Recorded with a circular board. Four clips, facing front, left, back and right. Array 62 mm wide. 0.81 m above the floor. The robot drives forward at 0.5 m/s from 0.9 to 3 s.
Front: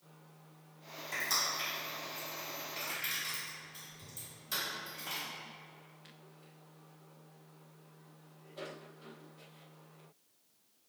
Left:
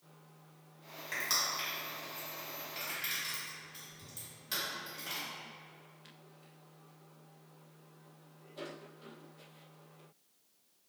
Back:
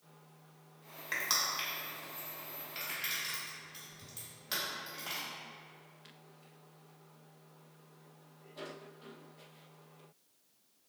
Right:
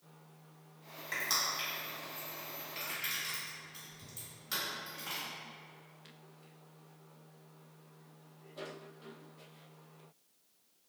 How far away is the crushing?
About 0.8 m.